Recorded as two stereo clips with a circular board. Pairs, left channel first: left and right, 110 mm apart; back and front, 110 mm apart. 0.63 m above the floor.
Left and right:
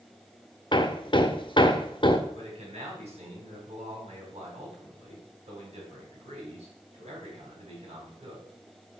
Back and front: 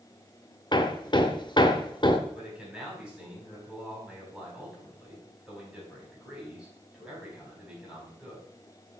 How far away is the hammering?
About 0.8 m.